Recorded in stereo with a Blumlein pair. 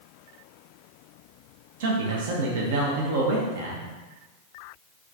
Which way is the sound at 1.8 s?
55° right.